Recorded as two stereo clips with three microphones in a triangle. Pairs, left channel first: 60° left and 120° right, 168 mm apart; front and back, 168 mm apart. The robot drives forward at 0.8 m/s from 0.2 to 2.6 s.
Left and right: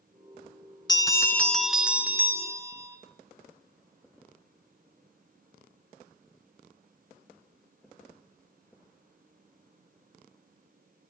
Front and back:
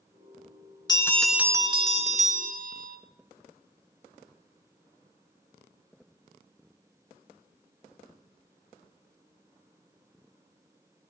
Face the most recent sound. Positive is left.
turn(degrees=170)